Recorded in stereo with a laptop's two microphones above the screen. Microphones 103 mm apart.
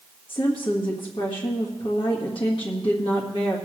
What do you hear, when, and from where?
0.3 s a woman speaking: 55° left (ahead or behind), 1.5 m